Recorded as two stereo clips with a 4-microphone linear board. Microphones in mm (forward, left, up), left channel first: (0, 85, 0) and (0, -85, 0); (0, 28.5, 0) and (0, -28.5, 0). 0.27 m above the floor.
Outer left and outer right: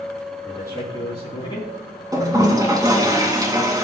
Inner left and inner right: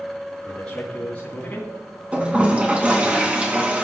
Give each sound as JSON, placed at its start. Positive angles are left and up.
{"t": 0.5, "sound": "a man speaking", "side_deg": 15, "distance_m": 2.5}
{"t": 2.1, "sound": "a toilet flushing", "side_deg": -20, "distance_m": 2.5}